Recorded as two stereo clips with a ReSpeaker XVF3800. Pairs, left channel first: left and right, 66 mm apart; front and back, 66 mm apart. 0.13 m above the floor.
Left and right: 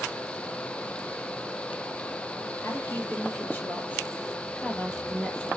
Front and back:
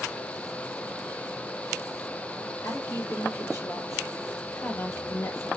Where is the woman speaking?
45° left, 3.5 m; by 5.5 s 20° left, 2 m.